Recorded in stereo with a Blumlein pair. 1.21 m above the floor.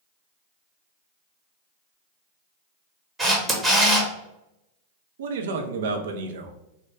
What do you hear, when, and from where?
3.2 s a camera shutter: 10° right, 0.9 m
5.2 s a man speaking: 60° right, 0.5 m